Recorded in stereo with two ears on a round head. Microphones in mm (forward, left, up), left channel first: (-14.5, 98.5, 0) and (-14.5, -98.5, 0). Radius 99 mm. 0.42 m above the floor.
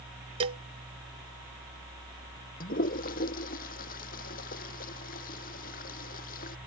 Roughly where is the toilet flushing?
Left.